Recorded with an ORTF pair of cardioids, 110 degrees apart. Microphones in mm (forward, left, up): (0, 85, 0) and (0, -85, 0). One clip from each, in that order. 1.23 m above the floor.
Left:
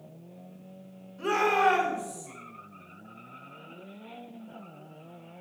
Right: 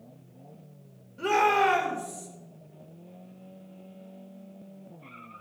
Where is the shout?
35° right, 4 m; by 2.3 s 30° right, 4.5 m.